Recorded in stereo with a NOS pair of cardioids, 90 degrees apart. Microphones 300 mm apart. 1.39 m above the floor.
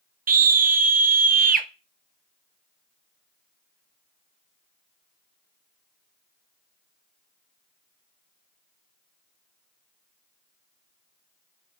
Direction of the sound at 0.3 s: 30° right.